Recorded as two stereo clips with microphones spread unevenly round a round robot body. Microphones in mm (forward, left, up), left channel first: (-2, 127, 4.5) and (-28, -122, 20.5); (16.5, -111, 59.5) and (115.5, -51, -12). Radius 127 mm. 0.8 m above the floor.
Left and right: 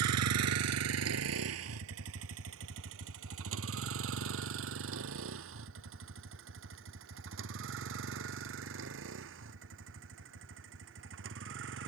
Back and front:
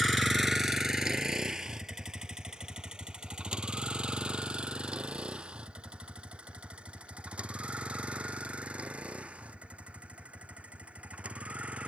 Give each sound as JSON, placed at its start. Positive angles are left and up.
{"t": 0.0, "sound": "a vehicle", "azimuth_deg": -65}